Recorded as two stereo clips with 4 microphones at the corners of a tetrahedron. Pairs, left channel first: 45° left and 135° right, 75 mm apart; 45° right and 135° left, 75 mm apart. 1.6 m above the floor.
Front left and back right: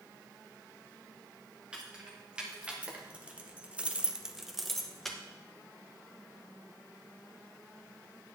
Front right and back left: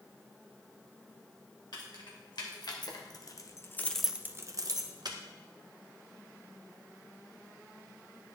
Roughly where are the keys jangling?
Ahead right.